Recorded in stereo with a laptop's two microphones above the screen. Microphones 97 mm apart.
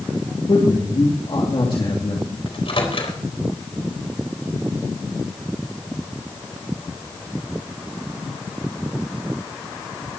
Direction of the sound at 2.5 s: 70° left (ahead or behind).